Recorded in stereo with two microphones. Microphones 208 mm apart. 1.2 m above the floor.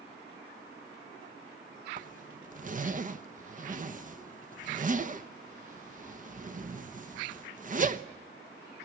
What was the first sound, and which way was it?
A zipper, 40° right (ahead or behind).